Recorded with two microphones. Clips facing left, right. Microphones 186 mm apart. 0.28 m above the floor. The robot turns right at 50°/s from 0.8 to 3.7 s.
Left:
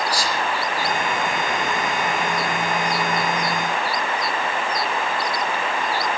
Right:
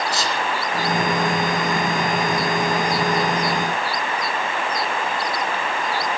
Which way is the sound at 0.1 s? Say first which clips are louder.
Even; 25° right (ahead or behind).